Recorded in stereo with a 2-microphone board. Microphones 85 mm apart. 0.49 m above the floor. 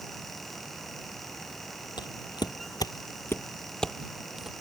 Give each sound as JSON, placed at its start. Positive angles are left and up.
{"t": 2.0, "sound": "footsteps", "side_deg": 60}